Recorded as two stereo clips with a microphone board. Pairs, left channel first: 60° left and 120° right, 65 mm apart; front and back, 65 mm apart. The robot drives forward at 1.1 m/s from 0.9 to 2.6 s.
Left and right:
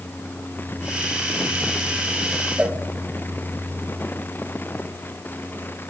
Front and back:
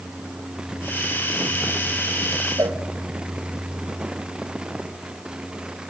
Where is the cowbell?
170° left, 1.9 m.